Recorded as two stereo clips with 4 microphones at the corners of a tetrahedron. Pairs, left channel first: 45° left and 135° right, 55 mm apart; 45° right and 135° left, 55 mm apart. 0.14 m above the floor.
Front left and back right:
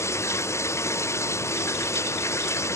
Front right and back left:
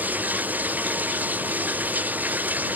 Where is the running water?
75° left.